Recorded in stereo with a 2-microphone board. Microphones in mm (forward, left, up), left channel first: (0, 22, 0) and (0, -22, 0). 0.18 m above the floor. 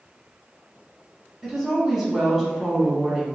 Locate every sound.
1.4 s a woman speaking: 5° right (ahead or behind), 1.3 m